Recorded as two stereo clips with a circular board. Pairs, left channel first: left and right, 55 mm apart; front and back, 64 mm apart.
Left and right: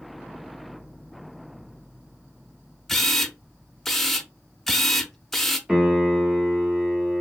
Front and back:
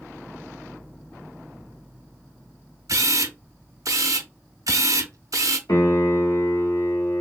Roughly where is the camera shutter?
Behind.